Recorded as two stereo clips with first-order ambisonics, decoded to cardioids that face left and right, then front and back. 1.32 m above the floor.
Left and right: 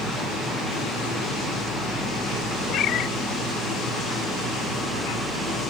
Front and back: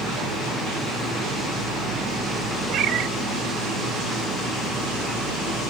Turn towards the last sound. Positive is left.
turn(degrees=135)